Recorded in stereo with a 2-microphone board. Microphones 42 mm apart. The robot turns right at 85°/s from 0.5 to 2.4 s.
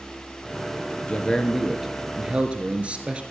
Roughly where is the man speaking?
Behind left.